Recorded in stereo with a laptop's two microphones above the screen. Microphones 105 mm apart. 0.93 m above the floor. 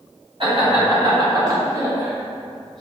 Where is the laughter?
50° right (ahead or behind), 1.5 m; by 2.8 s 5° left (ahead or behind), 0.8 m.